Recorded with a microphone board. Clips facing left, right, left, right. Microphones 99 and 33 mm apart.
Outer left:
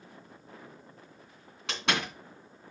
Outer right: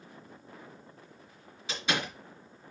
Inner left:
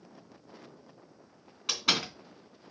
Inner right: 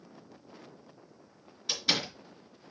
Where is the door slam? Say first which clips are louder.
Outer left 1 dB, inner left 1 dB; 75° left (ahead or behind), 3 m.